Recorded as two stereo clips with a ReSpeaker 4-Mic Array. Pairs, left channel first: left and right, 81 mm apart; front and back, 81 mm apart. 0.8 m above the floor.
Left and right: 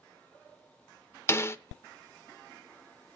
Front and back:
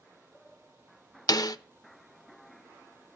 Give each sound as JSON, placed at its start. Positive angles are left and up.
{"t": 1.3, "sound": "a snare drum", "azimuth_deg": 35, "distance_m": 0.7}